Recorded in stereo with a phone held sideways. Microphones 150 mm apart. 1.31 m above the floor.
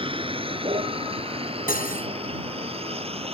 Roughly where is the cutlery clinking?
Left.